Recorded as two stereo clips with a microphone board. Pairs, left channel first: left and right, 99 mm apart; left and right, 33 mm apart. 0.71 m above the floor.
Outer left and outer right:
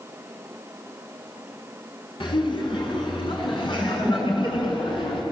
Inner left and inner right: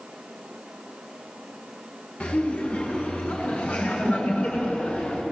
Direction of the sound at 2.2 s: 55° left (ahead or behind).